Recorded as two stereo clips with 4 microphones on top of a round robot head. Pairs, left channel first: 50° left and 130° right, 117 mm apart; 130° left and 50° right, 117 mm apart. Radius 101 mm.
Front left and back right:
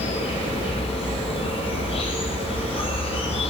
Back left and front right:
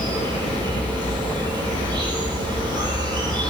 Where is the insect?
5° left, 7 m.